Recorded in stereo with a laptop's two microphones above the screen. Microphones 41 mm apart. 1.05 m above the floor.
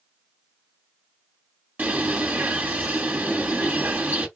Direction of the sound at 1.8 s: 45° right (ahead or behind).